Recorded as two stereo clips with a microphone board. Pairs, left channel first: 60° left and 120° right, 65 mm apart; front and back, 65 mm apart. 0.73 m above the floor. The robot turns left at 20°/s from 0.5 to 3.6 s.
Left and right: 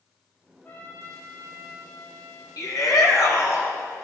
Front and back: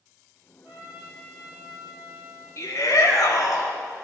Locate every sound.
0.6 s a trumpet: 125° left, 5.5 m; by 2.5 s 90° left, 5.5 m
2.6 s a shout: 40° left, 3 m; by 3.7 s 20° left, 3 m